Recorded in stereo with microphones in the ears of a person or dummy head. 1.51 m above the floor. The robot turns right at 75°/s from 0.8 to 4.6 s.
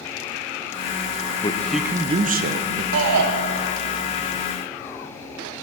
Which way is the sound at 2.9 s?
65° right (ahead or behind).